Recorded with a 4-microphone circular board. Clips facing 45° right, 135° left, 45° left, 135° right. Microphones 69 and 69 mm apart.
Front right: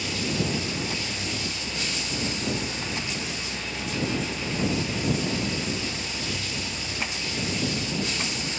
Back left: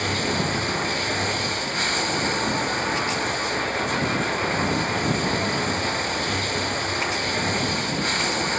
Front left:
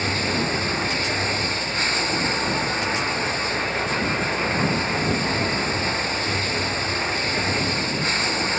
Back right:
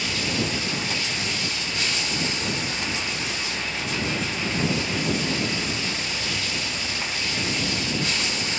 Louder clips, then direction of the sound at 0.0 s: Back left 4 dB, front left 3 dB; 95° left.